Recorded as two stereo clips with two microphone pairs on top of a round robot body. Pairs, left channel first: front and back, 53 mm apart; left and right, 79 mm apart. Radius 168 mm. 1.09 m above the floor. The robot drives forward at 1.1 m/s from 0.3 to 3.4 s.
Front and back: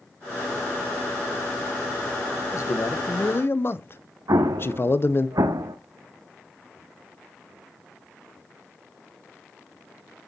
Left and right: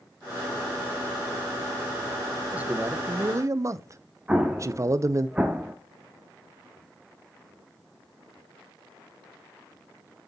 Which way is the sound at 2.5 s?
20° right.